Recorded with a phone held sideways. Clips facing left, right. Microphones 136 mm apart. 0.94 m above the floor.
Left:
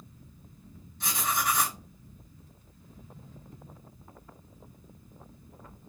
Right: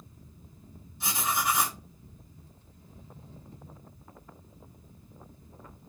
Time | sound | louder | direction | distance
0.0 | a fan | even | 30° right (ahead or behind) | 0.8 m
1.0 | writing | even | 5° right (ahead or behind) | 1.4 m